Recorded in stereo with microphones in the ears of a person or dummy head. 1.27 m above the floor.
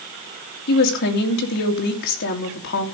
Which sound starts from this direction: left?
A woman speaking, at 0.7 s.